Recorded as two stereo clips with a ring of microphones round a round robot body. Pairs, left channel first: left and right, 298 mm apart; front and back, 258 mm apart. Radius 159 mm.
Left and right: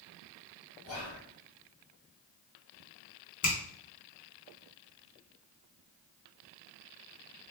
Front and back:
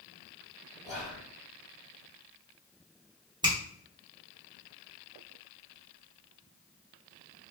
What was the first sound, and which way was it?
Whispering, 90° left.